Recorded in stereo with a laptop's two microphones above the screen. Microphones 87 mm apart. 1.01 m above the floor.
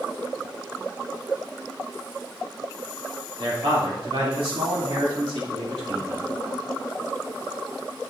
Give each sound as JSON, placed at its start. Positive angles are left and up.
{"t": 3.4, "sound": "a man speaking", "side_deg": -80, "distance_m": 2.5}